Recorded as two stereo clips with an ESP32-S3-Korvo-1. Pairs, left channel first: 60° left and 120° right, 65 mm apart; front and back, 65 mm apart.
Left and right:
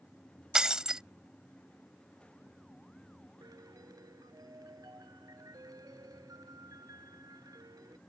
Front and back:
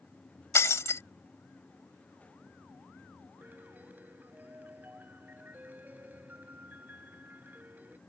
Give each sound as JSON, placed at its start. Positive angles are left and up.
{"t": 0.6, "sound": "breaking glass", "azimuth_deg": -40}
{"t": 3.4, "sound": "a piano", "azimuth_deg": -120}